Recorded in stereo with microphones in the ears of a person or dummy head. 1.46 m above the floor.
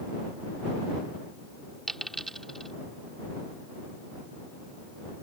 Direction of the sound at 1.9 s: Centre (ahead or behind).